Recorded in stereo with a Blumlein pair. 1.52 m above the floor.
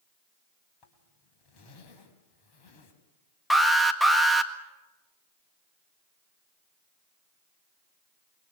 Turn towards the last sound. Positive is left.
turn(degrees=0)